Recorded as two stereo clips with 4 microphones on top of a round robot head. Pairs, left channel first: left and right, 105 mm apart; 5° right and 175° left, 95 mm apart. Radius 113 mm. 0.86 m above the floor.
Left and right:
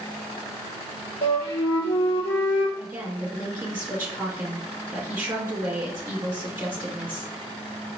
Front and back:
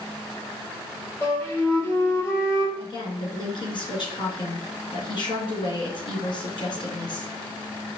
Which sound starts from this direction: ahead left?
A flute, at 1.2 s.